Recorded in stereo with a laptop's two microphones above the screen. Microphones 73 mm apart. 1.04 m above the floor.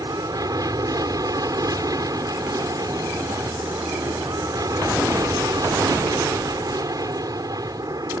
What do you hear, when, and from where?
0.0 s an aircraft: 60° right (ahead or behind)